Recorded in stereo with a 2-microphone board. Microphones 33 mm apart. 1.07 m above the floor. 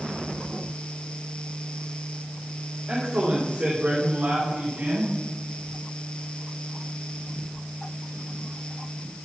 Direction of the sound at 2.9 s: 30° right (ahead or behind).